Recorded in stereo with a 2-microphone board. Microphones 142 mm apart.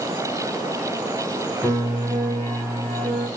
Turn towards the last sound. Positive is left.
turn(degrees=5)  # may be behind; listen again after turning